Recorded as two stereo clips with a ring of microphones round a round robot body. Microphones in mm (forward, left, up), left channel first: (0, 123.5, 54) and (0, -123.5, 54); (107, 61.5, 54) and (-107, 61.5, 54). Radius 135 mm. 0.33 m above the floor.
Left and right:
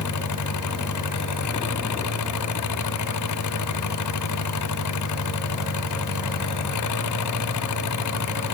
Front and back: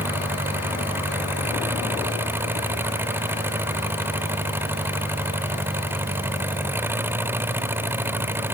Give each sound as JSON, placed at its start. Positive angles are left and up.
{"t": 0.0, "sound": "an engine running", "azimuth_deg": 100}